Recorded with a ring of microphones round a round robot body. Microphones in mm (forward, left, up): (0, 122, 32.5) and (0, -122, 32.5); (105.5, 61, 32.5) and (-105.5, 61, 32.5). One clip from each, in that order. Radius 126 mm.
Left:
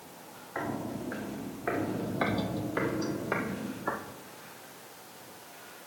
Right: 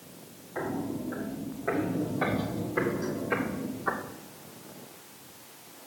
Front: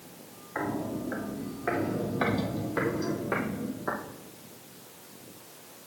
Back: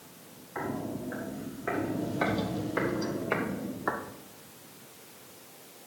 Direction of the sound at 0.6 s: 55° left.